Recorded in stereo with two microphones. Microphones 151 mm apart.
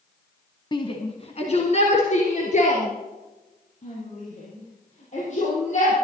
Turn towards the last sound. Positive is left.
turn(degrees=55)  # may be behind; listen again after turning